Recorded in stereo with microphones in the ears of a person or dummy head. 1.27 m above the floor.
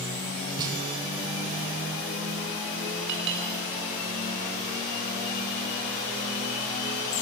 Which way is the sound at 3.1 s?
65° right (ahead or behind).